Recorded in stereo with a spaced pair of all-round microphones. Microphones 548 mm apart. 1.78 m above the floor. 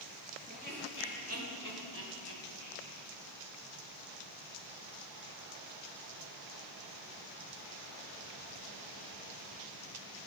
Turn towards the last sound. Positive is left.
turn(degrees=-60)  # may be behind; listen again after turning